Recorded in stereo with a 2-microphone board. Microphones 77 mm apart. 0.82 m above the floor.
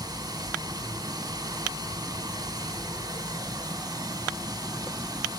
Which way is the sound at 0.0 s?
55° right (ahead or behind).